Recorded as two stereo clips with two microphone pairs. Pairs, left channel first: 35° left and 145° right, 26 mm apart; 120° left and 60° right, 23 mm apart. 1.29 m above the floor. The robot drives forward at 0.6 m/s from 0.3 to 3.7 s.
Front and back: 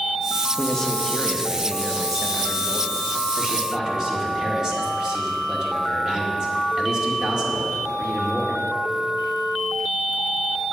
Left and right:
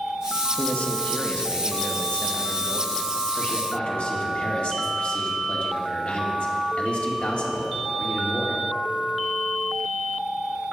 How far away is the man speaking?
About 1.5 m.